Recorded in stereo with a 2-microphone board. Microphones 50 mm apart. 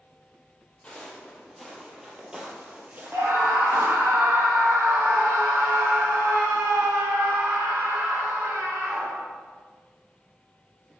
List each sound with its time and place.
0.8 s footsteps: 15° left (ahead or behind), 3 m; by 4.1 s 55° right (ahead or behind), 3 m
3.1 s a scream: 60° right (ahead or behind), 3 m